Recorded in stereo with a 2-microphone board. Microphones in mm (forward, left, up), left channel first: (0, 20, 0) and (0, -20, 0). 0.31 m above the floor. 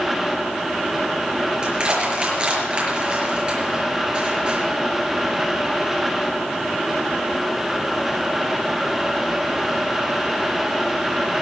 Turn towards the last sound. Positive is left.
turn(degrees=-25)  # may be behind; listen again after turning